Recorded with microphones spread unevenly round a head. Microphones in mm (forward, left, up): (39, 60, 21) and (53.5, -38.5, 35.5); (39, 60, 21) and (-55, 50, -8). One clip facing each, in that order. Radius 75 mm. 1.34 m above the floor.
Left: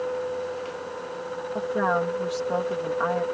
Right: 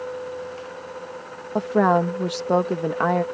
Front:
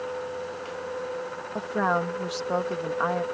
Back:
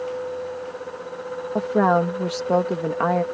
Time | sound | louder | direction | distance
1.6 | a woman speaking | right 6 dB, back 7 dB | 125° right | ?